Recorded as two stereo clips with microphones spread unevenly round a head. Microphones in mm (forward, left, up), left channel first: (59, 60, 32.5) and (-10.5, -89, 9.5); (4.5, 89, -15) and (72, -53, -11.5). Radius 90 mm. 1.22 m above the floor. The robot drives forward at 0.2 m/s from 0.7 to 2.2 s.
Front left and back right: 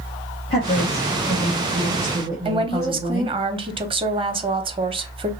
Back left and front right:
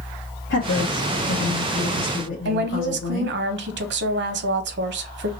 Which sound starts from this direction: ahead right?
A woman speaking, at 2.5 s.